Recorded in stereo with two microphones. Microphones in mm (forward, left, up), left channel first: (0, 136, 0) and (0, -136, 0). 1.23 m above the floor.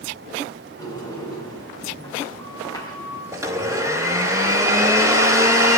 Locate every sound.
0.8 s a sliding door: 15° left (ahead or behind), 5.5 m
3.3 s a blender: 10° right (ahead or behind), 4 m